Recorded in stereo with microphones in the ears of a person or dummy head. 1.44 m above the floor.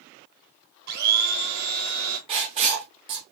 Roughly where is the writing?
Right.